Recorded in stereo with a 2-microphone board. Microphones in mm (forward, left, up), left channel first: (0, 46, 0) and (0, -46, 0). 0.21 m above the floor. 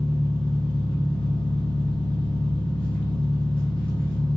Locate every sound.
0.0 s an engine running: 15° left (ahead or behind), 1.8 m